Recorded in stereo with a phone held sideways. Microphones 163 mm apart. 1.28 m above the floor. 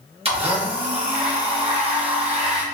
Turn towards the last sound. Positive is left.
turn(degrees=-35)  # may be behind; listen again after turning